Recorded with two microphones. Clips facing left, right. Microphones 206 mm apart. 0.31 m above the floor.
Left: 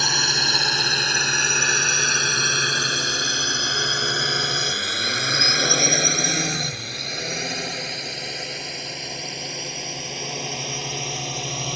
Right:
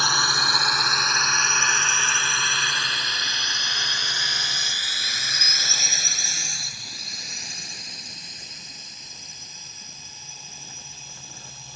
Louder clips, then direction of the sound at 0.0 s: Left 2 dB; 20° left (ahead or behind).